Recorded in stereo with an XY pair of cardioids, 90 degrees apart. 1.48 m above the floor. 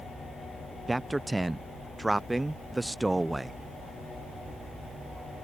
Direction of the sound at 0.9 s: 15° right.